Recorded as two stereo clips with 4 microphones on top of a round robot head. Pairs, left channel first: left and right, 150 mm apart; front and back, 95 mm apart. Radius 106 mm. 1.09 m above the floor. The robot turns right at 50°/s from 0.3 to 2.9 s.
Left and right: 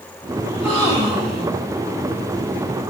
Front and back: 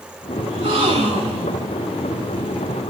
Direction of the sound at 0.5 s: Straight behind.